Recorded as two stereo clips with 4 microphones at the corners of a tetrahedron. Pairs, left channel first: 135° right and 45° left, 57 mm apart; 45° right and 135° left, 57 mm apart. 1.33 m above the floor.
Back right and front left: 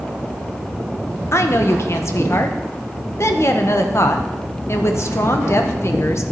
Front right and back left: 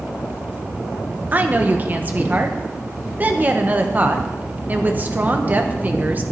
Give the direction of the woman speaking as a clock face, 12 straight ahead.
6 o'clock.